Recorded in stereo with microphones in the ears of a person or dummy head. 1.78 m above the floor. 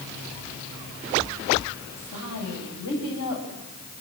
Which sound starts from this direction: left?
A woman speaking, at 2.0 s.